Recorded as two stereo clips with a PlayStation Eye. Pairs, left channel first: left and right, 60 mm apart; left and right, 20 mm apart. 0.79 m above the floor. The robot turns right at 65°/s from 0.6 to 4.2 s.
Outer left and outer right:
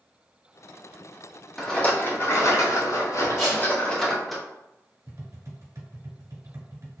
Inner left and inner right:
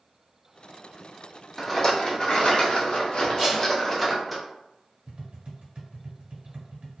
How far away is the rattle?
About 0.6 m.